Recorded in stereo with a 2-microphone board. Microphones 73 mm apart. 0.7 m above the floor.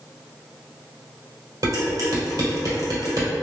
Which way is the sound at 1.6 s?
60° right (ahead or behind).